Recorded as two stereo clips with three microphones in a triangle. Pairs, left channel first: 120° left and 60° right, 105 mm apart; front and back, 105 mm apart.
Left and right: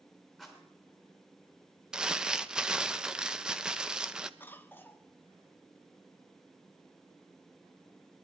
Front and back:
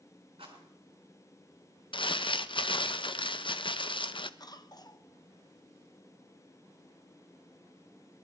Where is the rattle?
150° right, 4 m.